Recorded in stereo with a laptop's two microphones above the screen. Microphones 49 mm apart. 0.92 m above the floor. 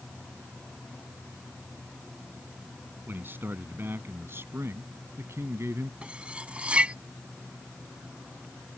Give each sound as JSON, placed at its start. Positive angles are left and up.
{"t": 3.1, "sound": "a man speaking", "side_deg": -45}
{"t": 6.0, "sound": "cutlery clinking", "side_deg": -25}